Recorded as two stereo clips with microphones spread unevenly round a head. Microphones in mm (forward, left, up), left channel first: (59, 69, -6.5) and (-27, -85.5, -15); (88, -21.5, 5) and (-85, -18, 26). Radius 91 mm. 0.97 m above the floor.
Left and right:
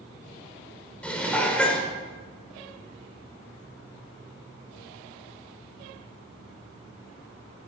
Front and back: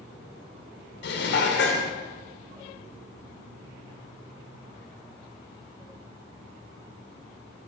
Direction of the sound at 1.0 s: 20° right.